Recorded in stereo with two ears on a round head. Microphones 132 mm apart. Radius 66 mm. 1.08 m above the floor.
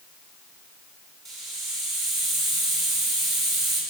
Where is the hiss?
Centre (ahead or behind), 8 m.